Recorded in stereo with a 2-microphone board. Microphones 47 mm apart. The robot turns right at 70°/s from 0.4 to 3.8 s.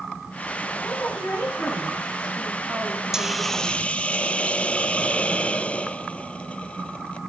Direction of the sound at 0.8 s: 70° left.